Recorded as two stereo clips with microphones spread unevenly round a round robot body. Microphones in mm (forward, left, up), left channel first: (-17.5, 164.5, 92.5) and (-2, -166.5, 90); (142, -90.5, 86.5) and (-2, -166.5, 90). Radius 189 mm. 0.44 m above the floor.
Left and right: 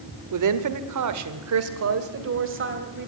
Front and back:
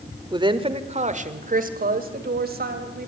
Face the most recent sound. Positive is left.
turn(degrees=-145)